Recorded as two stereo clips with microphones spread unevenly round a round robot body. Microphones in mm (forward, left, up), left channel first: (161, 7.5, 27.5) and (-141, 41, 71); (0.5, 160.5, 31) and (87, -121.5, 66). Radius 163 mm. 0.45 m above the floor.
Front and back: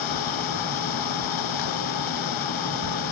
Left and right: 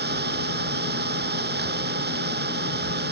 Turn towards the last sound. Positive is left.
turn(degrees=-15)